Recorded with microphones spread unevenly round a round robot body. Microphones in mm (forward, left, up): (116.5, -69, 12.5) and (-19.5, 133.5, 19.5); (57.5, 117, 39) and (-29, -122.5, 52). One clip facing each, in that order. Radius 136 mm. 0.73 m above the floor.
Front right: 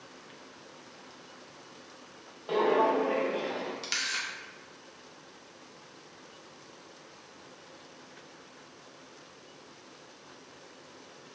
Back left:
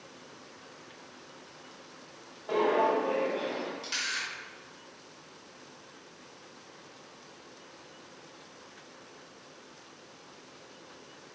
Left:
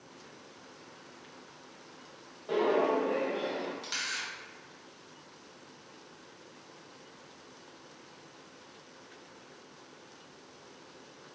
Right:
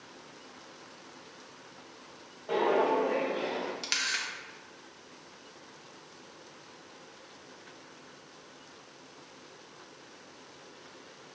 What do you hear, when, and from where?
2.5 s footsteps: 5° right, 1.2 m; by 3.7 s 155° right, 0.7 m
3.8 s a camera shutter: 90° right, 0.8 m